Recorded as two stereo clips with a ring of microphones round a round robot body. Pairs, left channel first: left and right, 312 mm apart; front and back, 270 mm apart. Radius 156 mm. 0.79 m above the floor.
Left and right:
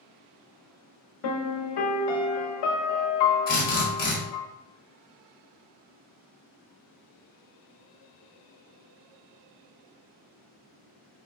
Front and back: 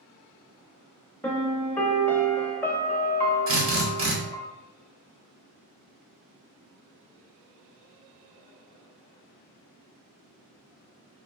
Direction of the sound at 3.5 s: 150° left.